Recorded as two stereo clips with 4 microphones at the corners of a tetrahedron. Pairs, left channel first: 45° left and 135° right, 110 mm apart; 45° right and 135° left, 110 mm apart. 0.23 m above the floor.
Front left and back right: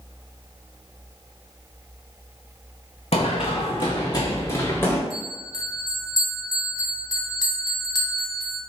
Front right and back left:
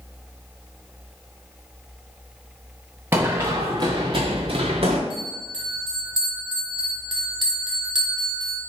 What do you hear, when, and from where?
3.1 s running footsteps: 65° left, 1.1 m; by 5.0 s 115° left, 1.3 m
5.1 s a bell: 95° left, 1.4 m